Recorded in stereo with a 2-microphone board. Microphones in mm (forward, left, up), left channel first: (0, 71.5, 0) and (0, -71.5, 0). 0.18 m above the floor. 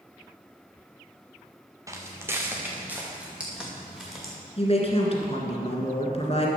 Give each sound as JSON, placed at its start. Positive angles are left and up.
{"t": 1.9, "sound": "footsteps", "side_deg": -20, "distance_m": 1.8}
{"t": 4.6, "sound": "a woman speaking", "side_deg": 40, "distance_m": 1.8}